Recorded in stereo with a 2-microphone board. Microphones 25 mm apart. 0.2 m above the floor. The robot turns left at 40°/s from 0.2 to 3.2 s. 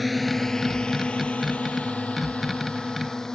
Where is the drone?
Centre (ahead or behind); by 3.4 s 25° left (ahead or behind).